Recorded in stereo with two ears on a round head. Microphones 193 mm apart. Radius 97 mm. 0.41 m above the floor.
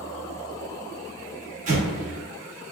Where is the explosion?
40° right (ahead or behind), 1.5 m.